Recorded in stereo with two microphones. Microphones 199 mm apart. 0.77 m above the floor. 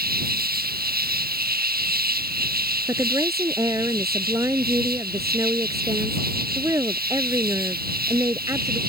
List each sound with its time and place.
0.0 s an insect: 50° right (ahead or behind)
2.9 s a woman speaking: 15° right (ahead or behind)